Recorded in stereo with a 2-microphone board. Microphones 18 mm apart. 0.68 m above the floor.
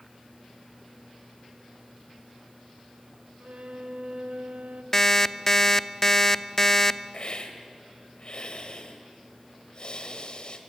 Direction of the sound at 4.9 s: 15° left (ahead or behind).